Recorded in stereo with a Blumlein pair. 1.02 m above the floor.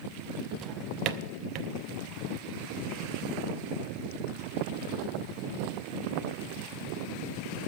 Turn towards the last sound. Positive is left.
turn(degrees=-35)